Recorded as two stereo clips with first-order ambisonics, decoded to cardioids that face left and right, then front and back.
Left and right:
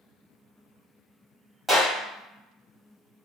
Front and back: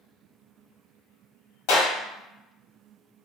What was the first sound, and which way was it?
A clap, straight ahead.